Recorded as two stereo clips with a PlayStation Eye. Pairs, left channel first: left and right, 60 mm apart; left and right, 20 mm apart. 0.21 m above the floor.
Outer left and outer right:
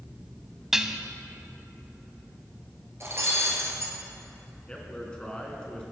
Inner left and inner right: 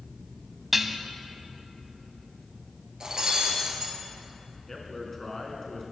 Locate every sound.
0.7 s dishes clattering: 10° right (ahead or behind), 0.7 m
3.0 s breaking glass: 45° right (ahead or behind), 2.5 m
4.7 s a man speaking: 15° left (ahead or behind), 2.5 m